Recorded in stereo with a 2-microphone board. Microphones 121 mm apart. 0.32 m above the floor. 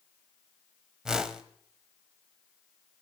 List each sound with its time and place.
1.1 s a whoosh: 5° right (ahead or behind), 0.9 m